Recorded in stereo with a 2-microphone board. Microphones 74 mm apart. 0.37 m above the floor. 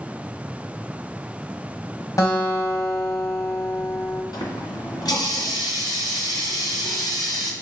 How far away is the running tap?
About 2 m.